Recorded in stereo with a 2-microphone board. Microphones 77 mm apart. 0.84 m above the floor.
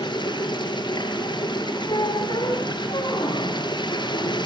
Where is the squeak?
75° left (ahead or behind), 4 m.